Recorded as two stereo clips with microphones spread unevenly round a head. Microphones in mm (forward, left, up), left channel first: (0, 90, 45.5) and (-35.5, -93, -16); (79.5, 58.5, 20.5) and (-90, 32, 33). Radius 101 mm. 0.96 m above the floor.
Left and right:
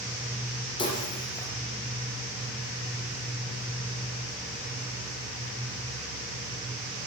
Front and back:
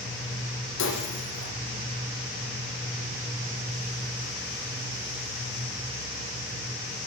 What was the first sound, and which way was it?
Breaking glass, 15° left.